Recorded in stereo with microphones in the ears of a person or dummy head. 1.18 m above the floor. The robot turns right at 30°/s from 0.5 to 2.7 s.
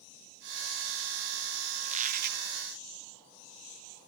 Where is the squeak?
35° right (ahead or behind); by 2.4 s 55° right (ahead or behind).